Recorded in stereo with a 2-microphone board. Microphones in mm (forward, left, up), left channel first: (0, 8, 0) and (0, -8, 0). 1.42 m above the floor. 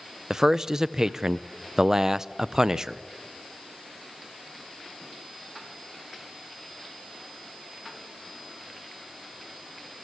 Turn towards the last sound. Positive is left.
turn(degrees=-25)  # may be behind; listen again after turning